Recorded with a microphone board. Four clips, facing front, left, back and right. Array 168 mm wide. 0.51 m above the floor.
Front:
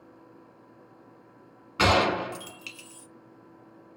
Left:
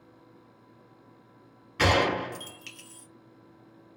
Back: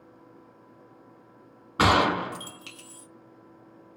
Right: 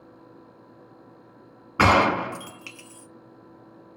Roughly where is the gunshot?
Behind right.